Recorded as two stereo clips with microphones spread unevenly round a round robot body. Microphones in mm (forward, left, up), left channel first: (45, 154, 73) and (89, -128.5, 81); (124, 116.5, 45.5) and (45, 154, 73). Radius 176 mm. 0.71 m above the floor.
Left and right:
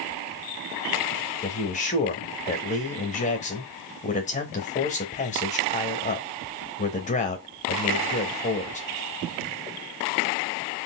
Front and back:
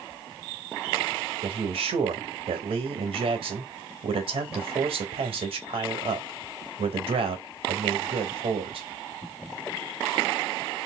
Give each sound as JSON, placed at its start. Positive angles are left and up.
{"t": 1.4, "sound": "a man speaking", "azimuth_deg": 160, "distance_m": 0.8}